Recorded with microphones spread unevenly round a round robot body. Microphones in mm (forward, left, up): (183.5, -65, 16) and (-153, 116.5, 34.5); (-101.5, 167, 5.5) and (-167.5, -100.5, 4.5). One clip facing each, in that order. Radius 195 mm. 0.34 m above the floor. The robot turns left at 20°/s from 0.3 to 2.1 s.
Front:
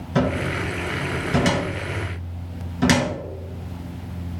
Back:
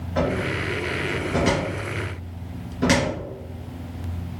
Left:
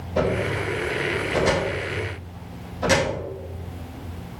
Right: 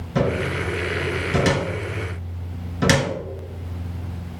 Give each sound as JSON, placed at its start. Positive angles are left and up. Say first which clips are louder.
{"t": 0.1, "sound": "a cupboard door", "louder": "front 2 dB, right 1 dB", "azimuth_deg": -60, "distance_m": 3.0}